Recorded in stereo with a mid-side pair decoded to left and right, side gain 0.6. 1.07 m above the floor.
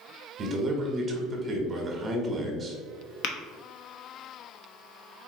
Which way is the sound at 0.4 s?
35° right.